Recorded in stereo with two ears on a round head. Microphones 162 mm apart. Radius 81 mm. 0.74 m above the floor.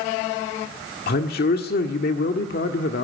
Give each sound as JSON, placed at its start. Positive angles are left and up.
{"t": 1.1, "sound": "a man speaking", "side_deg": 60, "distance_m": 1.7}